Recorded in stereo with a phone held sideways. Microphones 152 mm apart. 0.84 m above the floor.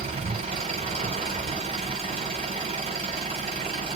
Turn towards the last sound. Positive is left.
turn(degrees=-45)  # may be behind; listen again after turning